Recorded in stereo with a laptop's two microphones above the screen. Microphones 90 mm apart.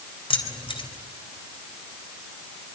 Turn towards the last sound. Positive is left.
turn(degrees=85)